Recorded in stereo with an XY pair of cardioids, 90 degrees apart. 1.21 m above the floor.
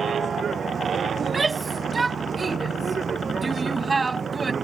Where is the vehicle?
50° right; by 4.6 s 40° right.